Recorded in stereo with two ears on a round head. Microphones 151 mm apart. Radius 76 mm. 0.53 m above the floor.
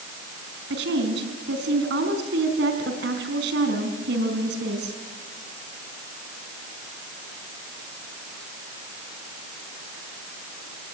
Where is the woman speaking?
70° right (ahead or behind), 4.5 m.